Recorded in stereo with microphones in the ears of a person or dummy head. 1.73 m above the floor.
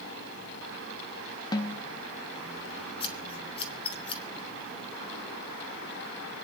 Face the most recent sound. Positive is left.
turn(degrees=30)  # may be behind; listen again after turning